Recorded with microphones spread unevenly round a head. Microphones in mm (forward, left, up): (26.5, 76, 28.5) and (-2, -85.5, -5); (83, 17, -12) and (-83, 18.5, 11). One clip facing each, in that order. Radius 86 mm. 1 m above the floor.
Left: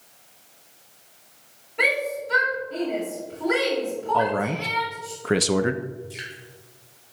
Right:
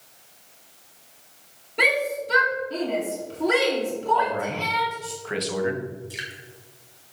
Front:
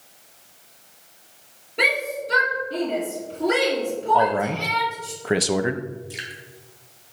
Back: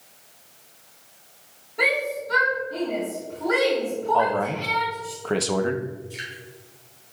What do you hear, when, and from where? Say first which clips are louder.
1.8 s a shout: right 1 dB, even; 60° right, 2 m
4.1 s a man speaking: left 2 dB, front 2 dB; 60° left, 0.7 m
6.1 s dripping: even, even; 30° right, 3.5 m